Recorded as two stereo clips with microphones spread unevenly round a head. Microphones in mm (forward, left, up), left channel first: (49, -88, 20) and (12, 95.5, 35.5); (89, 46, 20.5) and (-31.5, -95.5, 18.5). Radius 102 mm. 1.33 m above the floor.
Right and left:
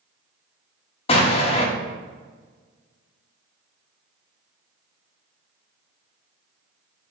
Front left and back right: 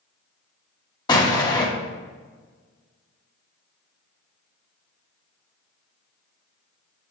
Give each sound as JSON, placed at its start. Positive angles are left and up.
{"t": 1.1, "sound": "an explosion", "azimuth_deg": -20, "distance_m": 1.1}